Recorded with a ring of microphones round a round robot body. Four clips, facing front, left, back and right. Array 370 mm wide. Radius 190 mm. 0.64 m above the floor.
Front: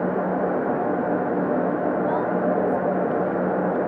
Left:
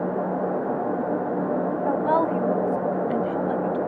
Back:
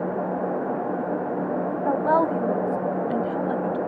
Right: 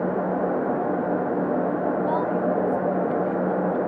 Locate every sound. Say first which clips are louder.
1.9 s a woman speaking: left 2 dB, back 2 dB; 155° left; by 3.8 s 135° left